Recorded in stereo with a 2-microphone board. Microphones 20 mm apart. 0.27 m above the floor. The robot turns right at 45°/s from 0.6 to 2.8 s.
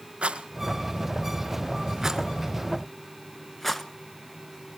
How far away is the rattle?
About 1.2 m.